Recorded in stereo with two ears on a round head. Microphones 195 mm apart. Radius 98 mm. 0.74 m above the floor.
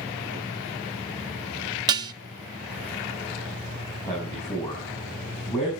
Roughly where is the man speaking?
Centre.